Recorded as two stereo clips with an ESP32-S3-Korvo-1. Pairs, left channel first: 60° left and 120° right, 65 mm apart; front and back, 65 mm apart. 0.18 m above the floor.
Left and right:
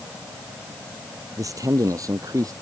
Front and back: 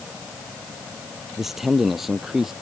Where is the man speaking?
95° right.